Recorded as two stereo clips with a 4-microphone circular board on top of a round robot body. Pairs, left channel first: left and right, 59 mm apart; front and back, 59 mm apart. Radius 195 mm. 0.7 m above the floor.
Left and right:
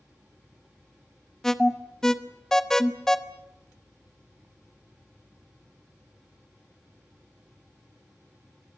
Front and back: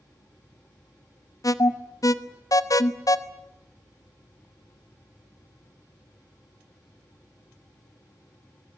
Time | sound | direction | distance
1.4 | an alarm | 10° left | 1.2 m